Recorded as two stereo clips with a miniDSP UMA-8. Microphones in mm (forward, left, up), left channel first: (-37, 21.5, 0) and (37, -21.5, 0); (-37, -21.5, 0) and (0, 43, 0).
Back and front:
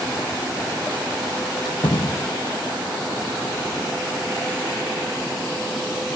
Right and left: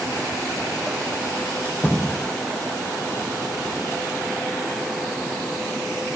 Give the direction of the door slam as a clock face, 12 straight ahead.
6 o'clock.